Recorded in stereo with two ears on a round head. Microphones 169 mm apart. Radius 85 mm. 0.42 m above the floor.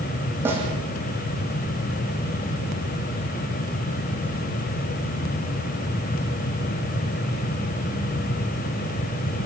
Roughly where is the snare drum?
Centre.